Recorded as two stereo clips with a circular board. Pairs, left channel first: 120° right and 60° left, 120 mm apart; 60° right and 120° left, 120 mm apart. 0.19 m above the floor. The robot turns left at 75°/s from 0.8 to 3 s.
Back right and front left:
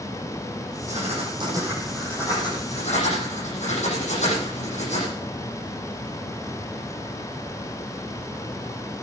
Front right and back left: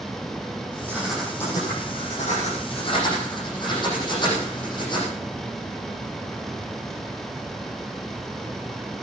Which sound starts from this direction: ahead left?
Writing, at 0.9 s.